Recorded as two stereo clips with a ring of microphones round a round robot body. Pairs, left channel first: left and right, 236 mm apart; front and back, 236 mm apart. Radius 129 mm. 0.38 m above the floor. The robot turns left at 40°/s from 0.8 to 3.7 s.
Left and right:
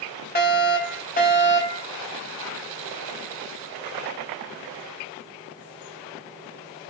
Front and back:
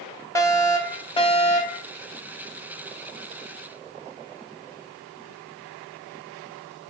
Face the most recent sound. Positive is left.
turn(degrees=-45)